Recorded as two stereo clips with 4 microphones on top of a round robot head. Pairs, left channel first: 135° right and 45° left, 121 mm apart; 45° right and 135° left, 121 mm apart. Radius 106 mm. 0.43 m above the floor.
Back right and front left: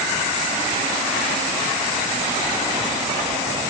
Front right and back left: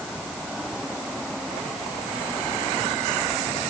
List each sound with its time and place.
Only background noise.